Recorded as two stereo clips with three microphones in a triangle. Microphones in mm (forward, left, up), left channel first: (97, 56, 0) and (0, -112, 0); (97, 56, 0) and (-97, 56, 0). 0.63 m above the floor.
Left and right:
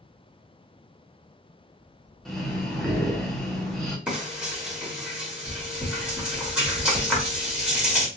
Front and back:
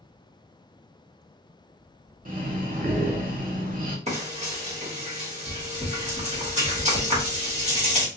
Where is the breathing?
150° left, 1.3 m.